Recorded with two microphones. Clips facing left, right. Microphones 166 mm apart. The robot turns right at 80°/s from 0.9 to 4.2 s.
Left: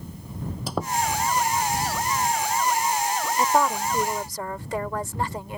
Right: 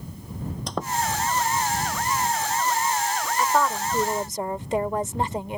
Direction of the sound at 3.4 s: 145° left.